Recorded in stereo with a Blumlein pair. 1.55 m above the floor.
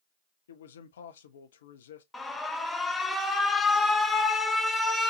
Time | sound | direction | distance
0.5 | a man speaking | 60° left | 0.7 m
2.1 | an alarm | 10° left | 0.5 m